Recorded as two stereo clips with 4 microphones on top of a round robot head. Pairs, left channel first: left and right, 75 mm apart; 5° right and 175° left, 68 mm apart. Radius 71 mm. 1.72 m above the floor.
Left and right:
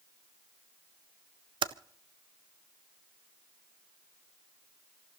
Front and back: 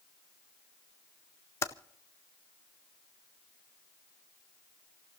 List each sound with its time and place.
1.6 s typing on a keyboard: 65° right, 0.6 m